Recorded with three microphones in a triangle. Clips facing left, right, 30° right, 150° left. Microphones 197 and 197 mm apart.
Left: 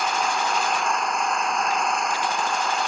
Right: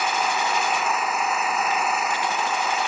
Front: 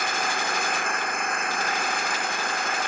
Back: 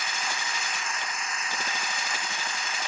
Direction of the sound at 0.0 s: 5° right.